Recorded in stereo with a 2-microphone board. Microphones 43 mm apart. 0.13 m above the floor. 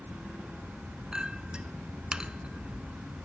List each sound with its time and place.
1.1 s a clink: 20° right (ahead or behind), 0.7 m